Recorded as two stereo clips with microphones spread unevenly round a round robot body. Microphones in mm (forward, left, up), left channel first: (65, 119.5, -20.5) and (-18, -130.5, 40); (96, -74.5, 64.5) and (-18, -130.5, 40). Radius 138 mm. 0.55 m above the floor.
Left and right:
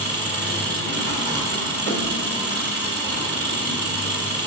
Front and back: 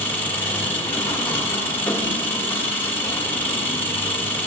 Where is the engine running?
55° right, 1.7 m.